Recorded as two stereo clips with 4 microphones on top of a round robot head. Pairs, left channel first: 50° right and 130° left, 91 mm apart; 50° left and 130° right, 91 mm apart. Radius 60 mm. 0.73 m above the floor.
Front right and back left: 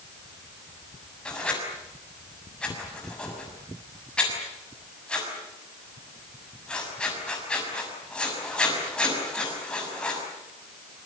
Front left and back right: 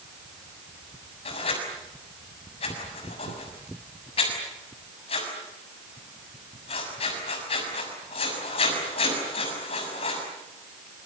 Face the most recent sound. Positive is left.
turn(degrees=30)